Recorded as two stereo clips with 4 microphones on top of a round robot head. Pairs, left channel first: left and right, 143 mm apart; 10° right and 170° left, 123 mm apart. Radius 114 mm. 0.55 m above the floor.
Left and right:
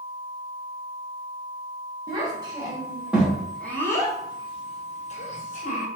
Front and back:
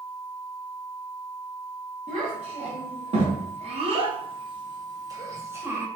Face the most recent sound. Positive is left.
turn(degrees=100)